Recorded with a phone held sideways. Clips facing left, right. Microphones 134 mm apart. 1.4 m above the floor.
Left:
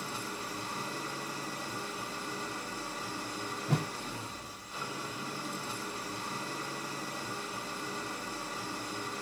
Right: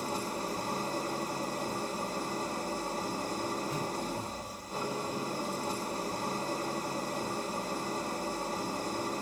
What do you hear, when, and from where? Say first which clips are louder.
0.0 s an engine running: right 6 dB; 40° right (ahead or behind), 5 m
3.7 s a whoosh: left 2 dB; 70° left (ahead or behind), 0.9 m